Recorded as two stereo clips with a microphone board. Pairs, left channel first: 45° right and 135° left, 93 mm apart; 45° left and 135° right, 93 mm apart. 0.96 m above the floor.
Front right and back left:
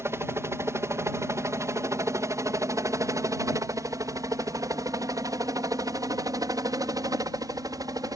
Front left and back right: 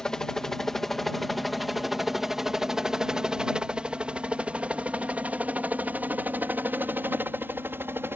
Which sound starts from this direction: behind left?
A helicopter, at 0.0 s.